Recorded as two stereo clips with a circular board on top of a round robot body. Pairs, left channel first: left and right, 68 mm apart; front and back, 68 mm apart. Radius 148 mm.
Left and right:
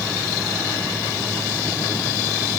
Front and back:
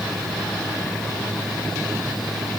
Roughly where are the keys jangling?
I don't hear keys jangling.